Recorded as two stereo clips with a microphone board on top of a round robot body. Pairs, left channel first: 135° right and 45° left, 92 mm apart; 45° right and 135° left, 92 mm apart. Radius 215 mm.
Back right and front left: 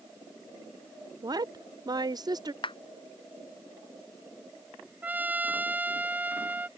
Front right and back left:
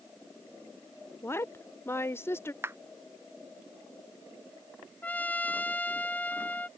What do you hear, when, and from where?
1.2 s a woman speaking: 15° left
2.6 s a clap: 160° right
5.0 s a trumpet: 5° left